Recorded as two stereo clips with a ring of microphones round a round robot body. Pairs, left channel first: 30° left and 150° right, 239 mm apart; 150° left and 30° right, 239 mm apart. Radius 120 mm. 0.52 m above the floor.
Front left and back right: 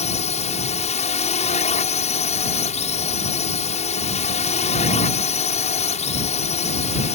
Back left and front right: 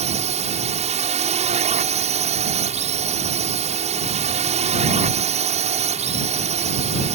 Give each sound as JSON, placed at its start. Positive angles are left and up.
{"t": 0.0, "sound": "a drone", "azimuth_deg": 0}